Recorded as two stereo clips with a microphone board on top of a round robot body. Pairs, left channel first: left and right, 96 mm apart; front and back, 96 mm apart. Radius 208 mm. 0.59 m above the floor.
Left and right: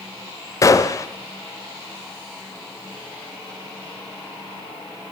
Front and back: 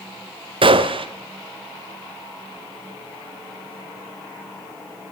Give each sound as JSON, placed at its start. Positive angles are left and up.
{"t": 0.6, "sound": "a gunshot", "azimuth_deg": 150, "distance_m": 0.9}